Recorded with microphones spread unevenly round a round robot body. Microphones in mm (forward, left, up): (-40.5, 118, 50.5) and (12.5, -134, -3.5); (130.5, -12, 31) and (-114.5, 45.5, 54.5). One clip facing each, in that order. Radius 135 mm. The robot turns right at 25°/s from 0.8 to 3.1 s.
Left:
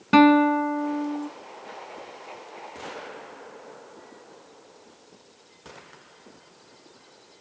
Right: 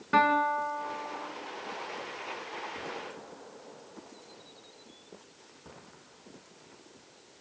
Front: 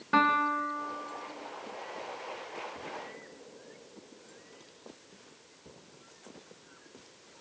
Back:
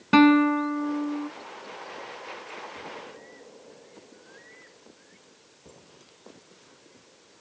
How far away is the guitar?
About 1.7 m.